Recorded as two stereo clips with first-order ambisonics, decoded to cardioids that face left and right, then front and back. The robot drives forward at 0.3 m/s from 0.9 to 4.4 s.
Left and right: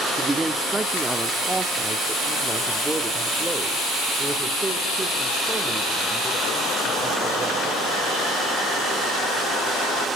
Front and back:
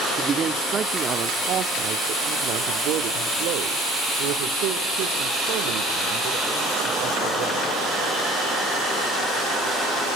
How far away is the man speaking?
About 0.7 m.